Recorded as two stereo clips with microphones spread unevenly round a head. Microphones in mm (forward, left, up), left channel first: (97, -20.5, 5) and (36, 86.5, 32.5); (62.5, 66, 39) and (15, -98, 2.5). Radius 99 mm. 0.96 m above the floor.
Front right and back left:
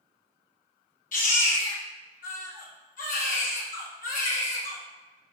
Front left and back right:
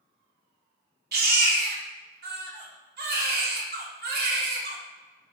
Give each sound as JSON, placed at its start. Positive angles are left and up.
{"t": 1.1, "sound": "a baby crying", "azimuth_deg": -80, "distance_m": 1.6}